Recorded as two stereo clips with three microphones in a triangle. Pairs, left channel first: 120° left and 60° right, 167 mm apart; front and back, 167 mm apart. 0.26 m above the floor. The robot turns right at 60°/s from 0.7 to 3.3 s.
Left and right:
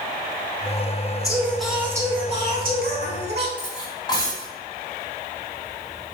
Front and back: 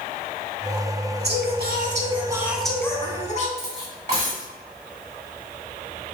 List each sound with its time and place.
1.2 s singing: 175° right, 0.6 m; by 3.5 s 50° right, 0.6 m
3.6 s cutlery clinking: 170° left, 1.0 m